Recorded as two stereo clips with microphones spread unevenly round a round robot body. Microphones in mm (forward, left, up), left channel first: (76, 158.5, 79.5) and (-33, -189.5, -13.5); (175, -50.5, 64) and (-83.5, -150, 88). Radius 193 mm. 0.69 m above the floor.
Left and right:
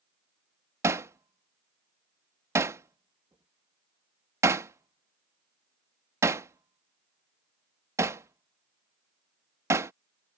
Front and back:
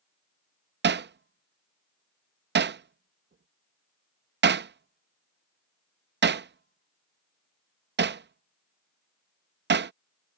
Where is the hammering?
155° right.